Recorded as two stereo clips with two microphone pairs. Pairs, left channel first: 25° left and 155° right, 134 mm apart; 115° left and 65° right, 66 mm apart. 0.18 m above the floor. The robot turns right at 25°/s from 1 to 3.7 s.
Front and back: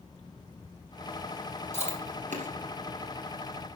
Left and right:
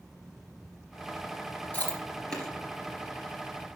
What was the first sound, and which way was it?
Chewing, straight behind.